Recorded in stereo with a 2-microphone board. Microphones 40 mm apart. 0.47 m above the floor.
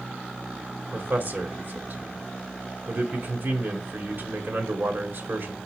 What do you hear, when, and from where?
0.9 s a man speaking: 60° right (ahead or behind), 1.7 m